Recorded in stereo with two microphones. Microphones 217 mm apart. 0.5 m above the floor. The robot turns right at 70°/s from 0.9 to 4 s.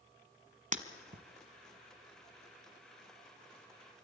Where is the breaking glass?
40° right (ahead or behind), 1.2 m; by 1.2 s 60° right (ahead or behind), 1.2 m.